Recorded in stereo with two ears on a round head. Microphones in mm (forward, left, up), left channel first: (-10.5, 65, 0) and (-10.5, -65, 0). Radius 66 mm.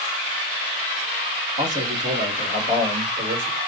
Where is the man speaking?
55° right (ahead or behind), 1.9 m; by 3.6 s 65° right (ahead or behind), 3 m.